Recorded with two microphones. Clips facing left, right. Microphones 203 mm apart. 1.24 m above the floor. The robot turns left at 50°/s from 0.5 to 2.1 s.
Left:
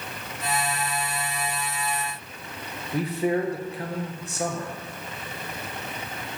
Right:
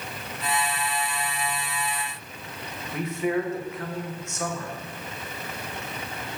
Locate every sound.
2.9 s a man speaking: 35° left (ahead or behind), 0.9 m